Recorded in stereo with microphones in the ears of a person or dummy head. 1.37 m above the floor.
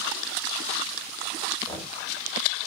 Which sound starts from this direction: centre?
Knocking, at 1.7 s.